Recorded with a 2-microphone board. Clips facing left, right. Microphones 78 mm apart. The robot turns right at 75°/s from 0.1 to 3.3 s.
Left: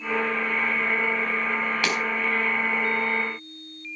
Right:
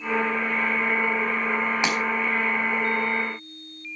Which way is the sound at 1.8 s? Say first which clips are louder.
Even; 20° right (ahead or behind).